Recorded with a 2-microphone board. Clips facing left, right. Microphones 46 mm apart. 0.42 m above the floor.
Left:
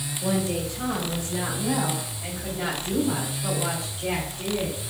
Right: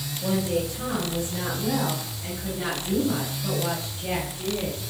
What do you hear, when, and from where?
0.2 s a woman speaking: centre (ahead or behind), 1.6 m; by 4.8 s 40° left (ahead or behind), 4 m